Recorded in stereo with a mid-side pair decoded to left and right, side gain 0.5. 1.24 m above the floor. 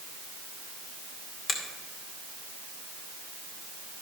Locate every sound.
1.5 s a finger snap: 40° left, 2.5 m